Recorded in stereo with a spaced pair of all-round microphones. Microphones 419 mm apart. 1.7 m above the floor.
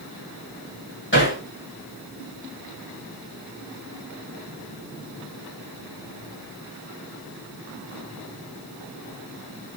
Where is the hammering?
25° left (ahead or behind), 3.5 m.